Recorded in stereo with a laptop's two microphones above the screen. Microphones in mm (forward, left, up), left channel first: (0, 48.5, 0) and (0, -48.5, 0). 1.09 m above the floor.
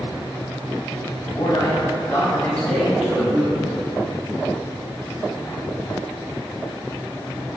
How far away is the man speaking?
About 0.9 m.